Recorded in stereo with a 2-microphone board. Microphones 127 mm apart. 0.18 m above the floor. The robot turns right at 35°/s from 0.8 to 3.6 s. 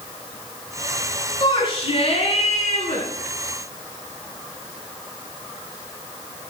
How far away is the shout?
About 2.5 m.